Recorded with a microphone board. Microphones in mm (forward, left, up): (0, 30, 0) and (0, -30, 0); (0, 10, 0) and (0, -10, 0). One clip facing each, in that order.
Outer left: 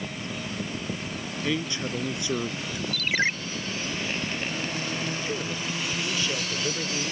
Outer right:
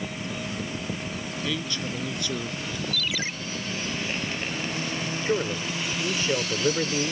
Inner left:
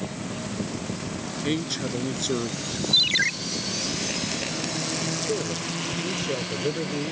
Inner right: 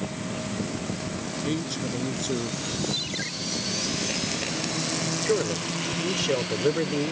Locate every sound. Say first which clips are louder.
1.4 s a man speaking: outer left 3 dB, inner left 3 dB; 20° left (ahead or behind)
2.9 s a ringtone: outer left 8 dB, inner left 10 dB; 45° left (ahead or behind)
5.2 s a man speaking: outer right 4 dB, inner right 2 dB; 30° right (ahead or behind)